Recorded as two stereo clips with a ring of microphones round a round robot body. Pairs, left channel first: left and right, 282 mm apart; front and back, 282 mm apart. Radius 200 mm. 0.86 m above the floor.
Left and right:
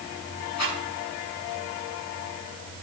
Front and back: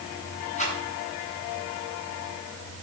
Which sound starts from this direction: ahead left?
A rattle, at 0.6 s.